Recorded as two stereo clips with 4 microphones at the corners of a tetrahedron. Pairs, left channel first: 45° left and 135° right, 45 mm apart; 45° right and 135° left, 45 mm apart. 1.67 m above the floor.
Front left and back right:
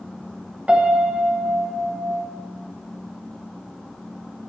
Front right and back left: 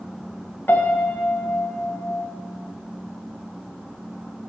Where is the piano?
75° right, 1.3 m.